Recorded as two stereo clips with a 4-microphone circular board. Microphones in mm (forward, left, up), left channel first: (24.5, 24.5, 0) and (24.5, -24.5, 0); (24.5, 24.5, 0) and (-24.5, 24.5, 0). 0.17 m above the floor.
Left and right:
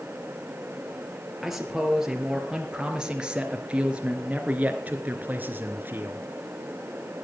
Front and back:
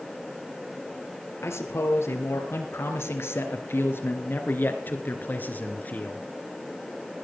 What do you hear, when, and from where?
1.4 s a man speaking: 5° right, 4 m; by 6.3 s 55° right, 3 m